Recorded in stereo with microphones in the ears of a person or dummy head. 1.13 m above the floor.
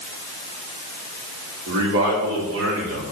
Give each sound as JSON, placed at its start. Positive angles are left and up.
{"t": 1.7, "sound": "a man speaking", "side_deg": -70, "distance_m": 4.0}